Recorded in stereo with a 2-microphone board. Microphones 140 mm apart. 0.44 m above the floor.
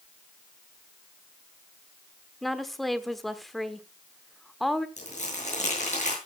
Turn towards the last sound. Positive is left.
turn(degrees=60)  # may be behind; listen again after turning